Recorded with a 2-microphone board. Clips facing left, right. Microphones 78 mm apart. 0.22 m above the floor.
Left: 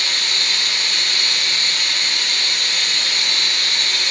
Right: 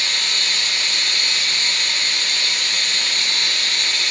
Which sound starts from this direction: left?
Running water, at 0.0 s.